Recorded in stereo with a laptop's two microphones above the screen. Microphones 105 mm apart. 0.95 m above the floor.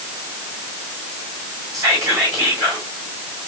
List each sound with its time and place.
1.7 s whispering: 35° right (ahead or behind), 2 m